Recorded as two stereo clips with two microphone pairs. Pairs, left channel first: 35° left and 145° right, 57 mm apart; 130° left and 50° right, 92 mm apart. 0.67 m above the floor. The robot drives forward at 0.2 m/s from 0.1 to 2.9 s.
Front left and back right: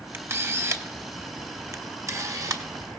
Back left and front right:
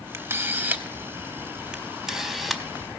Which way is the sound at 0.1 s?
105° right.